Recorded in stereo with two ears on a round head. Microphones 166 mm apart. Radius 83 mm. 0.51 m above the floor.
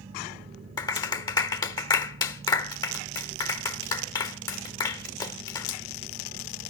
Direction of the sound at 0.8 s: 20° left (ahead or behind).